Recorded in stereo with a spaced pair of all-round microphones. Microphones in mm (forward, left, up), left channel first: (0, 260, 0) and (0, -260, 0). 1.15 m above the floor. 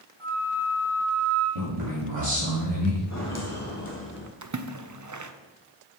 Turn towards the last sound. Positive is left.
turn(degrees=-35)  # may be behind; listen again after turning